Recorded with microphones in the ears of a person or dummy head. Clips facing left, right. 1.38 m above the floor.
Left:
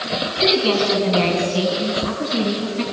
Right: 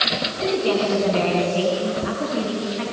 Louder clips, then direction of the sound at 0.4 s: Left 2 dB; 60° left (ahead or behind).